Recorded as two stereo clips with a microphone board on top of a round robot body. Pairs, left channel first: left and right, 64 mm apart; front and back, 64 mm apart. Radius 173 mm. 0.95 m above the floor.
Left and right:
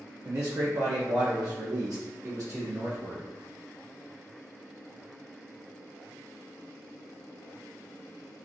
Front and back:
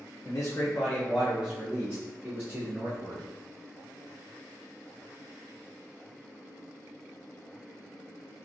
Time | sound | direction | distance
0.2 | a man speaking | 35° right | 0.5 m